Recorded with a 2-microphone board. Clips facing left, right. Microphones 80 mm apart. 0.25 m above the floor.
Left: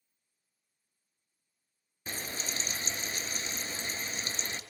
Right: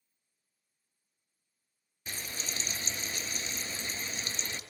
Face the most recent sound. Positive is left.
turn(degrees=35)  # may be behind; listen again after turning